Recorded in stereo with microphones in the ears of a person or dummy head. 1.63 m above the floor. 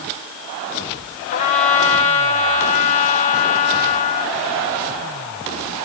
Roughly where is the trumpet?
Left.